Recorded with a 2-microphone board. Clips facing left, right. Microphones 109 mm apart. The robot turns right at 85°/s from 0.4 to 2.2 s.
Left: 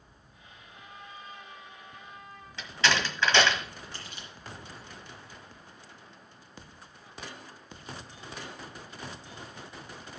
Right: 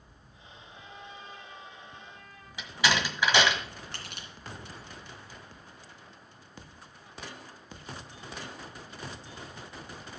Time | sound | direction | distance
0.7 | a trumpet | 170° left | 4 m
2.6 | a door slam | 10° right (ahead or behind) | 1.6 m
3.9 | crushing | 75° right (ahead or behind) | 3 m